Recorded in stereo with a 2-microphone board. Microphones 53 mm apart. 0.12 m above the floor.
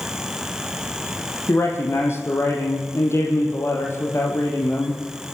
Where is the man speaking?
50° left (ahead or behind), 5 m.